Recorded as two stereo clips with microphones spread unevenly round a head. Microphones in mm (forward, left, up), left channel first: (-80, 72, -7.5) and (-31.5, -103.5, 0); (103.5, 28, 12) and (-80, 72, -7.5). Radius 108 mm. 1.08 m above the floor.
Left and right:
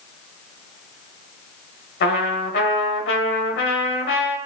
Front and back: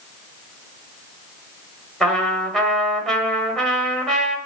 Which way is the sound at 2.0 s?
70° left.